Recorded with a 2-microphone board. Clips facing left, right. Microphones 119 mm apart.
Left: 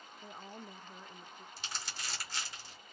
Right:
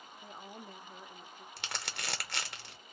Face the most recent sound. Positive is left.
turn(degrees=-70)  # may be behind; listen again after turning